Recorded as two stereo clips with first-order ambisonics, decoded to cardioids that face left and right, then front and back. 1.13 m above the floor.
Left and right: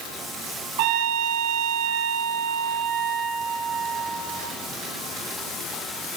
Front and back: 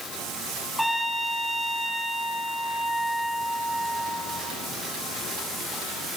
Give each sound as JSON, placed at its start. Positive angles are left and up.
{"t": 0.8, "sound": "a trumpet", "azimuth_deg": -90, "distance_m": 6.5}